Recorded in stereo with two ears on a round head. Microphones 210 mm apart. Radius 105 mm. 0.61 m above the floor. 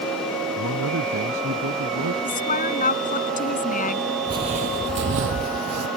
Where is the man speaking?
65° right (ahead or behind).